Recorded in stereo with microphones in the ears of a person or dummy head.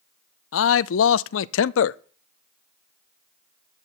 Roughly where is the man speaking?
Left.